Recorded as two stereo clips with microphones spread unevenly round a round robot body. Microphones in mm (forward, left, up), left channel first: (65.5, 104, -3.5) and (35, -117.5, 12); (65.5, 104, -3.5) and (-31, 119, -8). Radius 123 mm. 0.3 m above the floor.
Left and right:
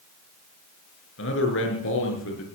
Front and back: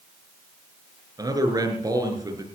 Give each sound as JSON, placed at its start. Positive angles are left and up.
{"t": 1.2, "sound": "a man speaking", "azimuth_deg": 125, "distance_m": 5.5}